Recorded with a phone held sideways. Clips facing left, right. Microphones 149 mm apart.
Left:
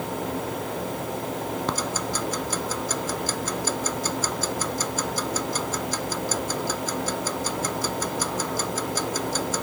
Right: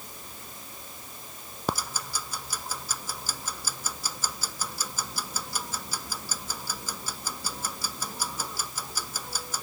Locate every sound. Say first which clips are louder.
0.0 s a fan: left 19 dB; 85° left
1.7 s ticking: left 6 dB; 10° right (ahead or behind)